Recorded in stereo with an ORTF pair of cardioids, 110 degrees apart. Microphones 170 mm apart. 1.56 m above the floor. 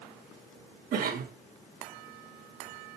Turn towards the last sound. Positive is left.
turn(degrees=-55)